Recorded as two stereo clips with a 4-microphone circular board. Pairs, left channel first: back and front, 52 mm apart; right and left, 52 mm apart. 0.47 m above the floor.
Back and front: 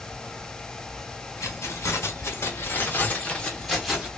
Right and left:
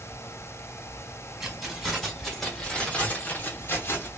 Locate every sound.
1.4 s keys jangling: 175° left, 1.3 m; by 4.1 s 75° right, 0.8 m